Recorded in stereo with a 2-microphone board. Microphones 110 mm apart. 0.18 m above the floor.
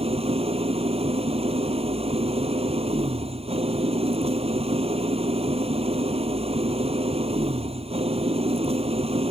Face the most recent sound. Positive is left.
turn(degrees=-65)  # may be behind; listen again after turning